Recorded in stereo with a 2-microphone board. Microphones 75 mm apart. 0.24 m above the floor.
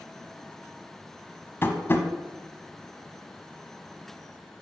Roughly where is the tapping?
Left.